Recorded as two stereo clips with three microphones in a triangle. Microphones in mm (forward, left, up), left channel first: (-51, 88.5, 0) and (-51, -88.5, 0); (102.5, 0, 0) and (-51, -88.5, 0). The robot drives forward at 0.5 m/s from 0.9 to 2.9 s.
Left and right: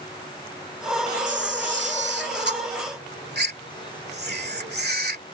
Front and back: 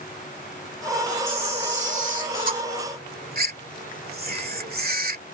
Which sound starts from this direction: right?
A camera shutter, at 1.3 s.